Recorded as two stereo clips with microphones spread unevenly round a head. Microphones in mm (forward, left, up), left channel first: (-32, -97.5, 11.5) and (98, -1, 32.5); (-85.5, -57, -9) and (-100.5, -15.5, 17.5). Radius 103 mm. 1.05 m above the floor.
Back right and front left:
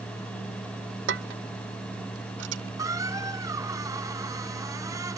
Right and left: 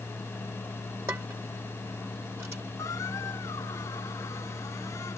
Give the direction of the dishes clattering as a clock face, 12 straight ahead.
10 o'clock.